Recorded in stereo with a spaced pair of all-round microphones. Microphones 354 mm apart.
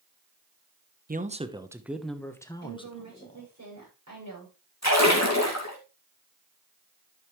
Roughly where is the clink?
No clink in this recording.